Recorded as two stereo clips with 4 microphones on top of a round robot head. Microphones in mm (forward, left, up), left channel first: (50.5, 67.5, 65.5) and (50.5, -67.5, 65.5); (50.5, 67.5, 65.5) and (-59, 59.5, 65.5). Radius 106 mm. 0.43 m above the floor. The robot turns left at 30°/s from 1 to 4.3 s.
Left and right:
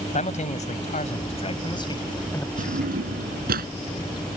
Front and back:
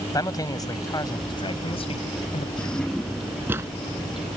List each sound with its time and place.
0.1 s a man speaking: 60° left; by 2.5 s 15° left
2.6 s a drawer: 70° right; by 3.7 s 105° right